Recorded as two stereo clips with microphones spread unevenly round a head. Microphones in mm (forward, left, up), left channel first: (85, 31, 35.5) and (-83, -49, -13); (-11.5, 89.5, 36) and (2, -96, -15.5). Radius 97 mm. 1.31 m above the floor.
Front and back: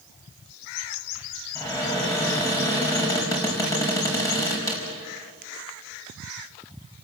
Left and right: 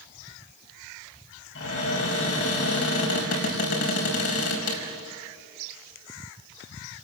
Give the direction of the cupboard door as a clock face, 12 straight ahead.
9 o'clock.